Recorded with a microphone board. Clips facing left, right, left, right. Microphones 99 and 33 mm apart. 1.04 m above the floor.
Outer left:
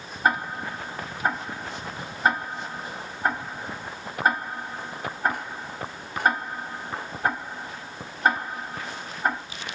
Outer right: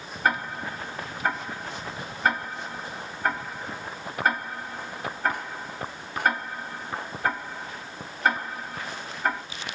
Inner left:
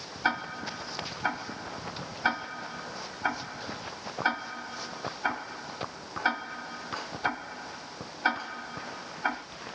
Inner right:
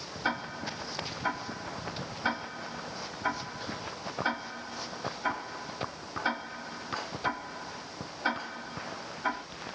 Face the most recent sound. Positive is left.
turn(degrees=20)  # may be behind; listen again after turning